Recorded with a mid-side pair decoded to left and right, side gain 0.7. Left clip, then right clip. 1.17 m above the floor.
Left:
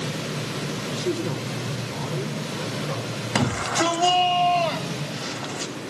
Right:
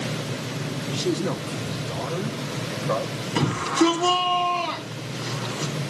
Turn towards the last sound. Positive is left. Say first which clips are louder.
# right 1 dB
turn(degrees=45)